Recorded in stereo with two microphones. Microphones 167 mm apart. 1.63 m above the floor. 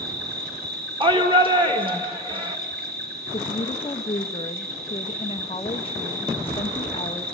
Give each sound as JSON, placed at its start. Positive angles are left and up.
{"t": 0.0, "sound": "an insect", "side_deg": -65, "distance_m": 4.0}
{"t": 1.0, "sound": "a shout", "side_deg": -30, "distance_m": 1.7}
{"t": 3.3, "sound": "a woman speaking", "side_deg": 35, "distance_m": 1.1}